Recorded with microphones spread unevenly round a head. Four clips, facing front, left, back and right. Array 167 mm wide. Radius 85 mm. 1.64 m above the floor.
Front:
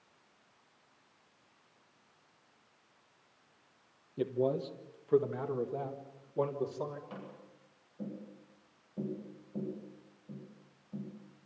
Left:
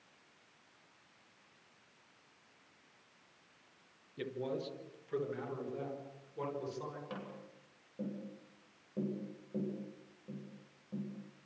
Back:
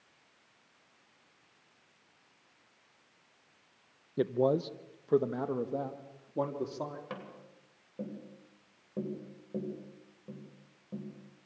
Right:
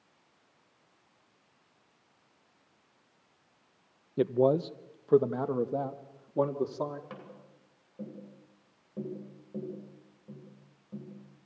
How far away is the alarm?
No alarm in this recording.